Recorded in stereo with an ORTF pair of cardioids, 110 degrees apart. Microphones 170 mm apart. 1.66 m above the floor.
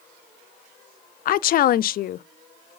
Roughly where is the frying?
No frying in this recording.